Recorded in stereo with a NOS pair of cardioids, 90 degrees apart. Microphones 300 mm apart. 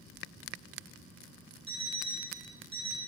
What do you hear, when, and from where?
1.7 s an alarm clock: 45° right, 3.5 m